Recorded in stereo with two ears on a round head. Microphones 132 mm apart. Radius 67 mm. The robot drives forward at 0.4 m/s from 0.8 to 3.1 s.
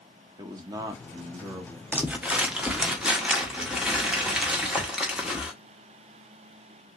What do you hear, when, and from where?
0.4 s a man speaking: 25° right (ahead or behind), 0.6 m; by 1.8 s 15° right (ahead or behind), 0.9 m
1.9 s crumpling: 10° right (ahead or behind), 0.5 m; by 5.5 s 5° right (ahead or behind), 1.0 m